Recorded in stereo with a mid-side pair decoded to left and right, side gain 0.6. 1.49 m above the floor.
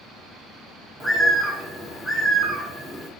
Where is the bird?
10° right, 0.8 m.